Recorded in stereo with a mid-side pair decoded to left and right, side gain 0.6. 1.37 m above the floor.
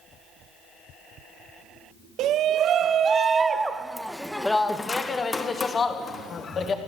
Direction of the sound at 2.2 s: 60° right.